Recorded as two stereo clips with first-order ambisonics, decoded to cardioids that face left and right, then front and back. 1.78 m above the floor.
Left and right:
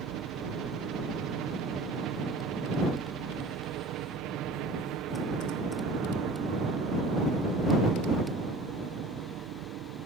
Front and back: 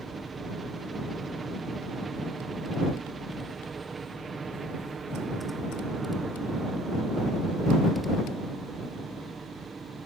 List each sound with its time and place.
0.0 s a helicopter: 110° right